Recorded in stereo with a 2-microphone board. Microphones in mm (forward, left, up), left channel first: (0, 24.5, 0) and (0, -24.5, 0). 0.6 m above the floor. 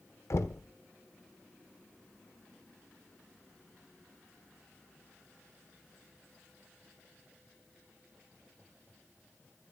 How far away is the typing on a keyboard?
I don't hear typing on a keyboard.